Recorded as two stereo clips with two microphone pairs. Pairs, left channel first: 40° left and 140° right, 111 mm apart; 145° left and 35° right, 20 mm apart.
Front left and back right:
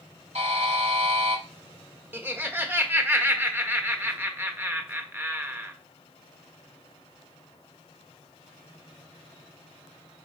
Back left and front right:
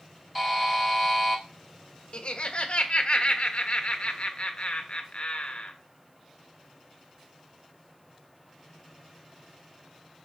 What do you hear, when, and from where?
0.3 s a buzzer: 125° right, 2 m
2.1 s laughter: 155° left, 1.5 m